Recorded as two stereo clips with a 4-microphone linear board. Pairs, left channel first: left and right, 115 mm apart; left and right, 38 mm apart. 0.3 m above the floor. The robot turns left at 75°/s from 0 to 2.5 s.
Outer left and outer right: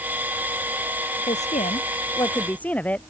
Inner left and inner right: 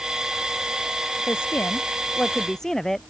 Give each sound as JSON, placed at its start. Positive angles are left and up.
{"t": 1.3, "sound": "a woman speaking", "azimuth_deg": 105}